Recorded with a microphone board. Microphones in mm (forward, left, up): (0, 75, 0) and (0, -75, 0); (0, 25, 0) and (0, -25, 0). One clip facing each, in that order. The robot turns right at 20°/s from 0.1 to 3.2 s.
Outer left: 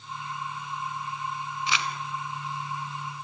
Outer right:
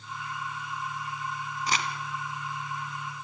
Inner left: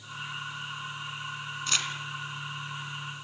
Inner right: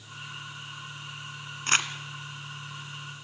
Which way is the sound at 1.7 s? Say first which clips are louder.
Even, inner right 6 dB; 40° right (ahead or behind).